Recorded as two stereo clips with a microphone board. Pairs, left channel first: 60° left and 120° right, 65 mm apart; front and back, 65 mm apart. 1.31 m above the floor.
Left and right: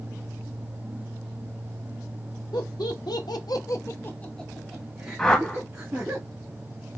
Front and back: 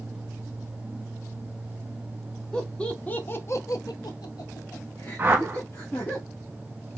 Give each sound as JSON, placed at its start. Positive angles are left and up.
{"t": 2.5, "sound": "laughter", "azimuth_deg": 80, "distance_m": 1.2}
{"t": 5.2, "sound": "a whoosh", "azimuth_deg": 130, "distance_m": 0.8}